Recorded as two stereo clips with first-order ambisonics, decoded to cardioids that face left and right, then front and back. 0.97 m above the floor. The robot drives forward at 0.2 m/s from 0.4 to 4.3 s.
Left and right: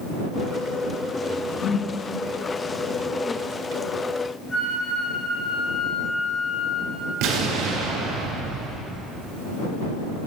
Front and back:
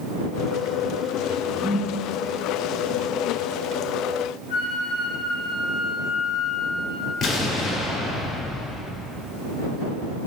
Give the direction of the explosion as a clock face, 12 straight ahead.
3 o'clock.